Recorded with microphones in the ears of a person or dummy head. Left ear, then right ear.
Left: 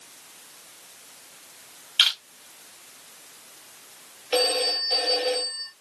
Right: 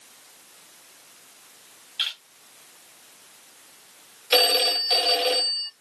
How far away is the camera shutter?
About 1.8 m.